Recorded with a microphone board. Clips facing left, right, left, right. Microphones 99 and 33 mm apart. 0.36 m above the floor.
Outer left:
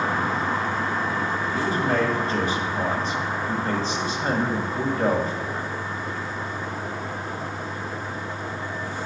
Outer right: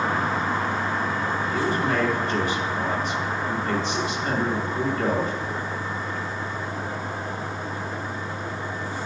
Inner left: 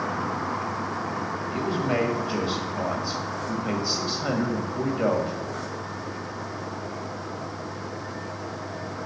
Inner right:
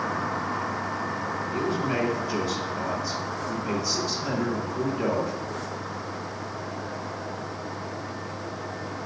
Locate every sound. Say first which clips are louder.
1.5 s a man speaking: outer left 1 dB, inner left 2 dB; 35° left (ahead or behind), 1.3 m